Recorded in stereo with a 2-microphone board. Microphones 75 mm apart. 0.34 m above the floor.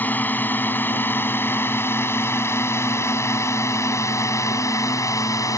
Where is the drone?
25° left (ahead or behind); by 5.6 s 50° left (ahead or behind).